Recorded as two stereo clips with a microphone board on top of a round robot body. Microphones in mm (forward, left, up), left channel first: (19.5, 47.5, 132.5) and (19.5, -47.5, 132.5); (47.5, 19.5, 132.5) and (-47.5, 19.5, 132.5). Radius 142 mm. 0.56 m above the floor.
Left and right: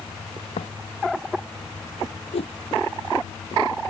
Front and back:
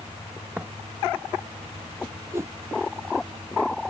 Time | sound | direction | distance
0.6 | footsteps | 110° left | ?
2.3 | a whoosh | 115° left | ?